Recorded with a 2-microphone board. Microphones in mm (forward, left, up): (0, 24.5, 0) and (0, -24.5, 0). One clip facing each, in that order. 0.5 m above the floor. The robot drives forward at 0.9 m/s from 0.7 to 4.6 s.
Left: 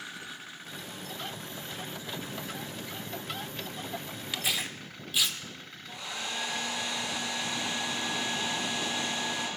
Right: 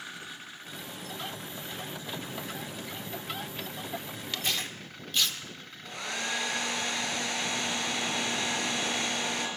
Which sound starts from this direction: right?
A hair dryer, at 5.8 s.